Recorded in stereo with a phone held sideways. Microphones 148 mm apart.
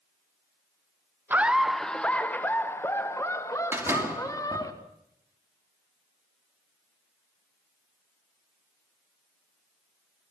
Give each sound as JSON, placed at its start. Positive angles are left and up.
{"t": 1.3, "sound": "laughter", "side_deg": -15, "distance_m": 0.6}
{"t": 3.7, "sound": "a door slam", "side_deg": -15, "distance_m": 2.5}